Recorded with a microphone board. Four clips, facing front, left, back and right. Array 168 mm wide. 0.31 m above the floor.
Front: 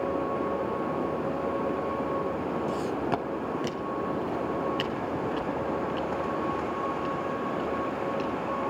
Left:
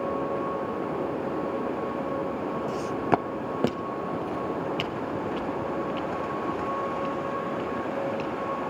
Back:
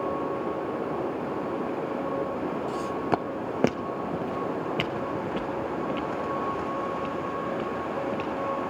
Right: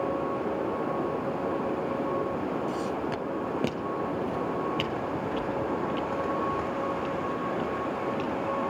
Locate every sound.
2.7 s footsteps: 60° left, 0.6 m; by 8.7 s 165° right, 5.5 m